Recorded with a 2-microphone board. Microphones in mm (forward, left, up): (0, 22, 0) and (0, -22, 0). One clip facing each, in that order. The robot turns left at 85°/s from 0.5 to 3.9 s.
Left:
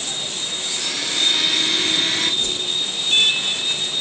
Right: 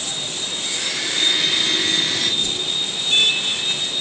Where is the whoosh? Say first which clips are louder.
Even; 50° left (ahead or behind), 1.0 m; by 2.7 s 30° left (ahead or behind), 1.0 m.